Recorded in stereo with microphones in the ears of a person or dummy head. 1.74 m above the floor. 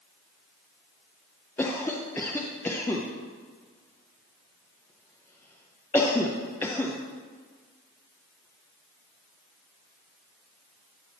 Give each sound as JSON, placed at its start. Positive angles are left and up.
{"t": 1.6, "sound": "a cough", "side_deg": 15, "distance_m": 0.7}